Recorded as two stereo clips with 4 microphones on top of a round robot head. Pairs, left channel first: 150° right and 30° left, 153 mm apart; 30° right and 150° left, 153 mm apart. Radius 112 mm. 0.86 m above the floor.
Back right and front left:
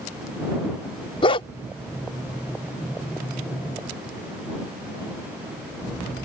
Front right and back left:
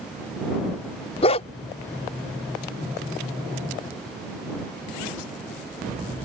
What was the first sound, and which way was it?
A dog barking, 90° right.